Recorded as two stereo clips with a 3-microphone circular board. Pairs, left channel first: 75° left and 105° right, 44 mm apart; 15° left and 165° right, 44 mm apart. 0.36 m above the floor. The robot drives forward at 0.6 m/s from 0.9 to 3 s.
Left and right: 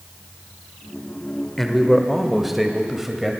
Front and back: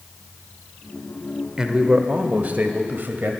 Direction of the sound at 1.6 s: 150° left.